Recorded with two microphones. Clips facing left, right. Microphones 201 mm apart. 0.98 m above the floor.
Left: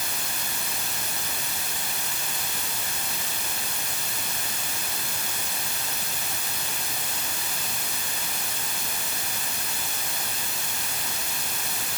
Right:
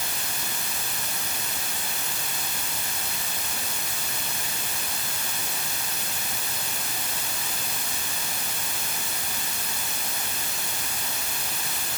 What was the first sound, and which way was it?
Only background noise.